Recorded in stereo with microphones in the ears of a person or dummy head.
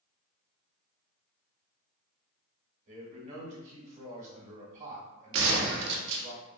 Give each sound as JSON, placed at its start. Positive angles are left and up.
{"t": 2.9, "sound": "a man speaking", "side_deg": -40, "distance_m": 1.0}
{"t": 5.3, "sound": "a gunshot", "side_deg": -65, "distance_m": 0.6}